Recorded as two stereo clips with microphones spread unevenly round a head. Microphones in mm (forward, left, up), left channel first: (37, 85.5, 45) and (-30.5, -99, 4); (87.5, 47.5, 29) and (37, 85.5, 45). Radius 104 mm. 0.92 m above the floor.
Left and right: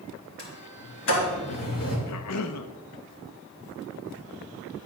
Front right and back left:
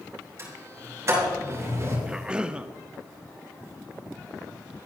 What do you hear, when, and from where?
0.4 s a sliding door: 100° left, 5 m
2.1 s a cough: 60° left, 0.8 m